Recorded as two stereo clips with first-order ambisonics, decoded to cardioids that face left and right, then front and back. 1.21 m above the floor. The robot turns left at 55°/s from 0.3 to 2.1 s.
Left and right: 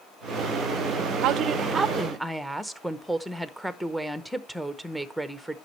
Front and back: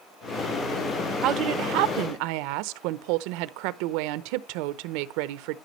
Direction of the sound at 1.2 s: 130° right.